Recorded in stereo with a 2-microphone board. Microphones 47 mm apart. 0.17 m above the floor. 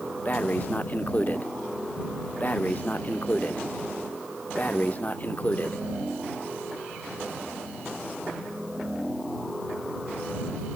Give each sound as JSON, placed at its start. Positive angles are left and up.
{"t": 0.2, "sound": "breathing", "side_deg": 35}